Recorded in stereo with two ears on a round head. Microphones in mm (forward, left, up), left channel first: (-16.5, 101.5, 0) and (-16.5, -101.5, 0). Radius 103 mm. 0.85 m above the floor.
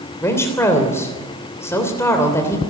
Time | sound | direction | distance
0.2 | a woman speaking | 15° left (ahead or behind) | 3 m